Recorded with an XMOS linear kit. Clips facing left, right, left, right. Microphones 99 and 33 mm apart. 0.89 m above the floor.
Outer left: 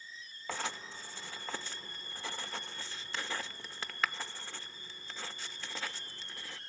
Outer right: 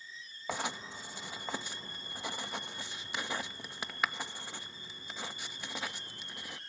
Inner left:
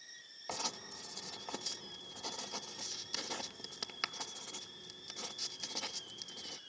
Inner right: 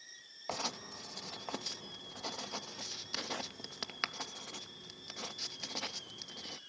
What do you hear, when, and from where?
0.5 s writing: 15° right (ahead or behind), 0.6 m